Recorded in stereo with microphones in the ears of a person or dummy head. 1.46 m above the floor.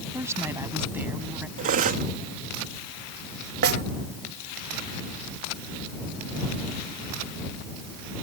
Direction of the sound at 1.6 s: 45° right (ahead or behind).